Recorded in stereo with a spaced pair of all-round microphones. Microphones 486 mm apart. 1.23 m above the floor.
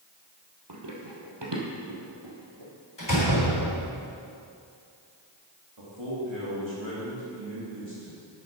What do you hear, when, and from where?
0.7 s running footsteps: 55° right (ahead or behind), 2 m; by 2.7 s 50° right (ahead or behind), 4 m
3.0 s a door slam: 55° left (ahead or behind), 4 m
5.8 s a man speaking: 65° right (ahead or behind), 2.5 m